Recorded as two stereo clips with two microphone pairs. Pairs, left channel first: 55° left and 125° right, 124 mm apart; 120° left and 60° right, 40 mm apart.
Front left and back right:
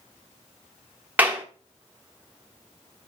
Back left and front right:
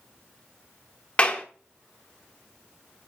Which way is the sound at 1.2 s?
165° left.